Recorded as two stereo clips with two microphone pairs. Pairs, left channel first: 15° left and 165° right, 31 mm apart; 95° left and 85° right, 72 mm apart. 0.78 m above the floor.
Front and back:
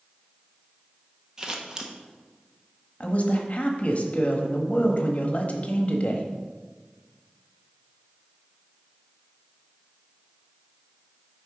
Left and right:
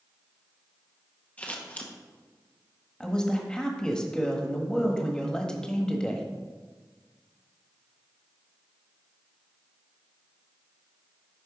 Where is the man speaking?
25° left, 1.1 m.